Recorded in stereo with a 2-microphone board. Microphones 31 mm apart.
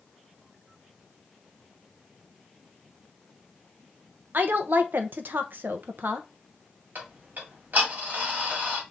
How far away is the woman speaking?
About 0.8 m.